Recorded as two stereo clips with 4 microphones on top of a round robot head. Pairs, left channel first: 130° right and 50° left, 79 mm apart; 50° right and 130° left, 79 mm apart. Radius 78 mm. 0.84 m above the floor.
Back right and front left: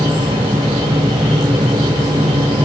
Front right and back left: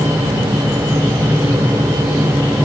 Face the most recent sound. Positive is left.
No sound to turn to.